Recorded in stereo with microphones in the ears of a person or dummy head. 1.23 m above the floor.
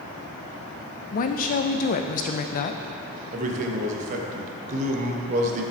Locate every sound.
1.1 s a woman speaking: 45° left (ahead or behind), 0.5 m
3.3 s a man speaking: 45° right (ahead or behind), 1.1 m